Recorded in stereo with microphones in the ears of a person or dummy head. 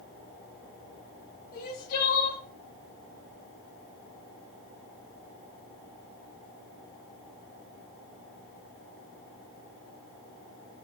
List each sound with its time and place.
1.5 s crying: 55° left (ahead or behind), 4 m